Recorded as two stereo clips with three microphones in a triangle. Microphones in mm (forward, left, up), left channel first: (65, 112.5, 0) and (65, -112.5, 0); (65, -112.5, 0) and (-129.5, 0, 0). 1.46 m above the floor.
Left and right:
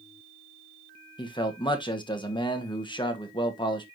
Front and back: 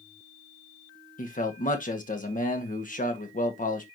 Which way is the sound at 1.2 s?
20° left.